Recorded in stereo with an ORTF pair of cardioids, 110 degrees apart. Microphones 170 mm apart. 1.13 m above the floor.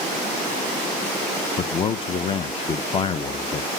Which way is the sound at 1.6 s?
30° left.